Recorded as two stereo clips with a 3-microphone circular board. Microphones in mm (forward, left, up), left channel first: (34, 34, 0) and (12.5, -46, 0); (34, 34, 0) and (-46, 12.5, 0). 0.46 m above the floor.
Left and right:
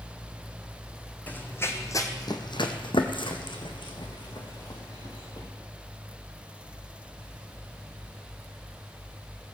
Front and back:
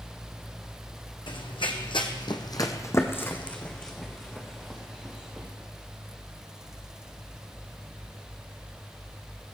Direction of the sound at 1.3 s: 5° left.